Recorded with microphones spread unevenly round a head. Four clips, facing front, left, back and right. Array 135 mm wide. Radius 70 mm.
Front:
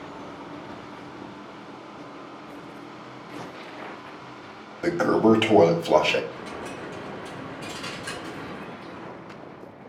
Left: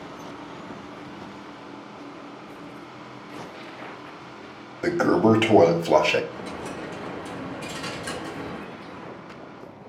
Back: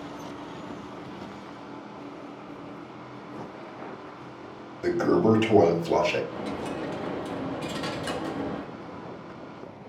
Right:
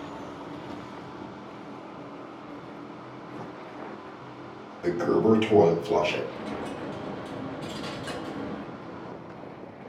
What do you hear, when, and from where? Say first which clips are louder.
4.8 s a toilet flushing: left 3 dB, front 2 dB; 55° left, 0.9 m
6.3 s a dropped coin: even, back 4 dB; 170° left, 0.6 m